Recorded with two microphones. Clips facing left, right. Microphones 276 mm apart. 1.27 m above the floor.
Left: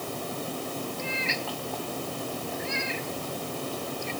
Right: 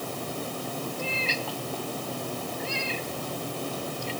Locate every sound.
1.0 s a cat meowing: 35° right (ahead or behind)